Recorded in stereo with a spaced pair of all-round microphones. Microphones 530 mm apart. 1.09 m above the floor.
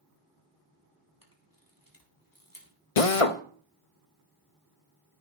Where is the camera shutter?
40° left (ahead or behind), 3.5 m.